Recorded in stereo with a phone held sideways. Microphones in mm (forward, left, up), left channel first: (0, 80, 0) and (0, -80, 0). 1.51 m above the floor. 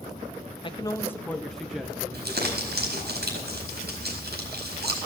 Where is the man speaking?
30° left (ahead or behind), 0.7 m; by 3.1 s 15° right (ahead or behind), 2.5 m.